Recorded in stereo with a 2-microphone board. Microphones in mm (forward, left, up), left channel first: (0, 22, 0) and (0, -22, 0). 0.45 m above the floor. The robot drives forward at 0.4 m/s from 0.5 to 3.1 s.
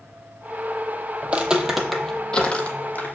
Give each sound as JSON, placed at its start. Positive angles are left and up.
{"t": 1.2, "sound": "footsteps", "side_deg": -30, "distance_m": 0.5}